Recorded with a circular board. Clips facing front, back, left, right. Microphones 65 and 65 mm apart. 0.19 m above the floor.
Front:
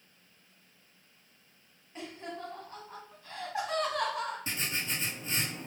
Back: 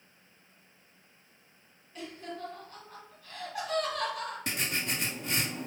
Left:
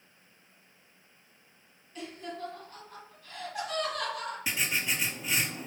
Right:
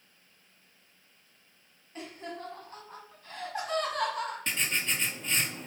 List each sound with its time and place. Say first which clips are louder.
1.9 s laughter: even, left 1 dB; 55° right, 1.6 m
4.5 s writing: back 2 dB, left 4 dB; 175° left, 0.6 m